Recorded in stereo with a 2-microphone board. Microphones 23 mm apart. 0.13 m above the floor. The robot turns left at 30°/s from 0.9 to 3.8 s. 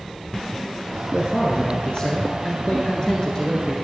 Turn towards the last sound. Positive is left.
turn(degrees=25)